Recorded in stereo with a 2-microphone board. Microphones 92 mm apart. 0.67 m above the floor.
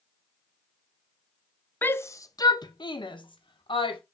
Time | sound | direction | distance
1.8 | a shout | 20° left (ahead or behind) | 0.6 m